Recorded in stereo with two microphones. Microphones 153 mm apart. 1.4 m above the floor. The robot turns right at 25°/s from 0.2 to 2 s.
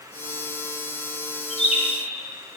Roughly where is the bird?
Left.